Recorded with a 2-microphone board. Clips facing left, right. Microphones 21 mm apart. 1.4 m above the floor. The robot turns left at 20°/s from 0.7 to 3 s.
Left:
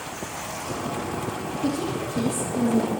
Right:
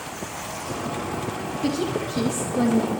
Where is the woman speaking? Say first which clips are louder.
Right 2 dB; 75° right (ahead or behind), 2 m; by 2.9 s 80° right, 2 m.